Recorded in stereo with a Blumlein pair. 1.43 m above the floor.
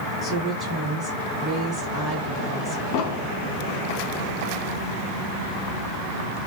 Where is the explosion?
40° left, 0.6 m.